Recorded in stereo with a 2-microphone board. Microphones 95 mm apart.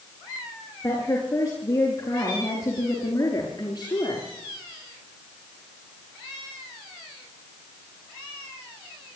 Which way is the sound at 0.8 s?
25° left (ahead or behind).